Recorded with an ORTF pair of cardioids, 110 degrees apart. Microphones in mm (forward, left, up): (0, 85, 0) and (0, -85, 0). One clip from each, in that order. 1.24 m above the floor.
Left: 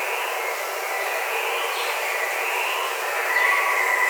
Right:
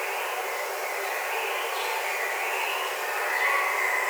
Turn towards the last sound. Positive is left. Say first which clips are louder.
# left 4 dB
turn(degrees=50)